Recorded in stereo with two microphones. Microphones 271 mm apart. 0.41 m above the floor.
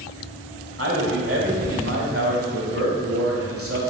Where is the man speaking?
60° right (ahead or behind), 1.6 m.